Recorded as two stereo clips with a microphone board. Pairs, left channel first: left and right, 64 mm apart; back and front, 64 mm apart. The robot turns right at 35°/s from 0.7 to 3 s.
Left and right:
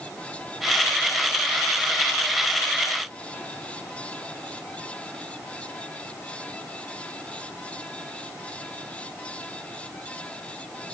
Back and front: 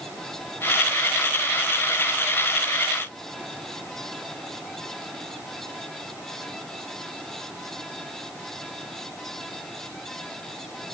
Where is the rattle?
I don't hear a rattle.